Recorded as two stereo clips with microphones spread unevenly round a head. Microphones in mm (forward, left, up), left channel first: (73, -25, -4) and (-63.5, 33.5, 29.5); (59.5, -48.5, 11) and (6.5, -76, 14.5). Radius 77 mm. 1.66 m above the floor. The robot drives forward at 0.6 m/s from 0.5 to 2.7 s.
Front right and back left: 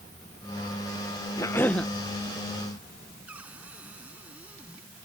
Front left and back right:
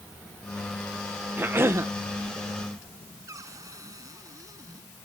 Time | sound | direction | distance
1.4 | a cough | 100° right | ?
3.3 | a cupboard door | 125° right | ?